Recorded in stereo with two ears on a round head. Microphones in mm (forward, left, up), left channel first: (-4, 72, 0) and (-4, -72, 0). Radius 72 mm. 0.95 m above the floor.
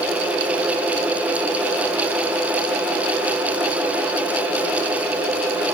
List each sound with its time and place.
Only background noise.